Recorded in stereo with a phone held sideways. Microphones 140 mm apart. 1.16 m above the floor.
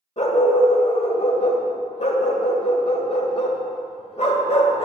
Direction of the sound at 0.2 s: 50° left (ahead or behind).